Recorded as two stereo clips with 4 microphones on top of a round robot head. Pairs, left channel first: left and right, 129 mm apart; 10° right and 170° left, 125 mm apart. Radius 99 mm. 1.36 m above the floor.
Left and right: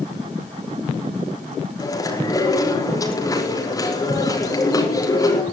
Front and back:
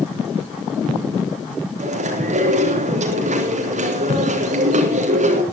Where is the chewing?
155° left, 4.5 m.